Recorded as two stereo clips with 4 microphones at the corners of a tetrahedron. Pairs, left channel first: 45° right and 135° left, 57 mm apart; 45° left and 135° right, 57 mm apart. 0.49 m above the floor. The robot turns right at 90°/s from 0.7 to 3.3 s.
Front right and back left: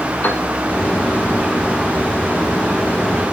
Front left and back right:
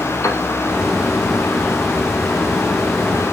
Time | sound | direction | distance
0.2 | a piano | 10° left | 2 m